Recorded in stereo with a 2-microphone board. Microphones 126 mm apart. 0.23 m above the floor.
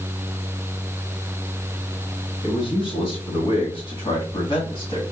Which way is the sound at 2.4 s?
45° left (ahead or behind).